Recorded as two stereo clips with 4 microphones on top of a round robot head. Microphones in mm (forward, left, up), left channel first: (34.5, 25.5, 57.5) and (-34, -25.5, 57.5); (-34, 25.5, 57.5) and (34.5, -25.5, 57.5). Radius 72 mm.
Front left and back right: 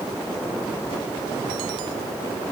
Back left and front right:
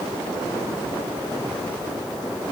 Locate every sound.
Only background noise.